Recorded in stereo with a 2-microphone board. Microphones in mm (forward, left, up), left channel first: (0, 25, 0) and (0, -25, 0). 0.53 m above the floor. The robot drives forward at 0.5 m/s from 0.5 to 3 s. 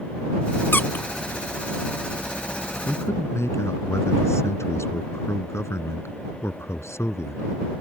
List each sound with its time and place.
0.7 s a squeak: 45° left (ahead or behind); by 1.1 s 35° left (ahead or behind)
2.9 s a man speaking: 65° left (ahead or behind)